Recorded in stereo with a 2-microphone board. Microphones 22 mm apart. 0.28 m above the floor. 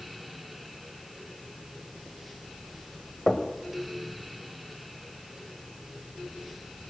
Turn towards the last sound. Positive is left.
turn(degrees=20)  # may be behind; listen again after turning